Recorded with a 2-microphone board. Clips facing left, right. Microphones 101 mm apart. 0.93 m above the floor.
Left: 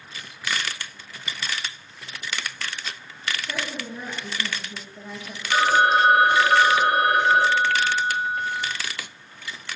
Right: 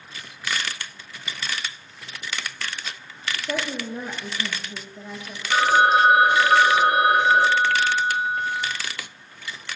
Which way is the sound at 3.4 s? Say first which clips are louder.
Right 4 dB; 70° right (ahead or behind).